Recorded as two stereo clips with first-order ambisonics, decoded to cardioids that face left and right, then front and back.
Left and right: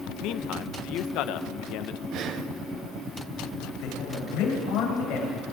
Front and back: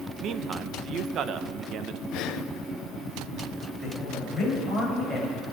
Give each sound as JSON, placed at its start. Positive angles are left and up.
{"t": 0.2, "sound": "a man speaking", "azimuth_deg": 125, "distance_m": 0.9}
{"t": 2.1, "sound": "breathing", "azimuth_deg": -40, "distance_m": 0.8}
{"t": 3.8, "sound": "a man speaking", "azimuth_deg": 95, "distance_m": 8.5}